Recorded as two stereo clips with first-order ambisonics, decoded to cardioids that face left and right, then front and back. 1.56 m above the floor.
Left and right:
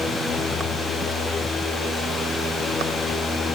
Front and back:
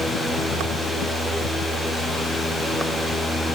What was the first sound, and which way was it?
Only background noise.